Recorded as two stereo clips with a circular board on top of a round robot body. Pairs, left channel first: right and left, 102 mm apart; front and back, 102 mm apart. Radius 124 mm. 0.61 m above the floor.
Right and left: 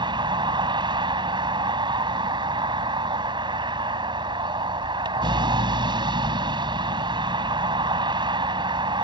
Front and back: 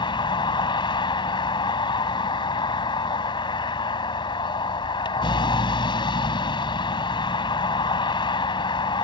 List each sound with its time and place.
0.0 s a vehicle: 45° left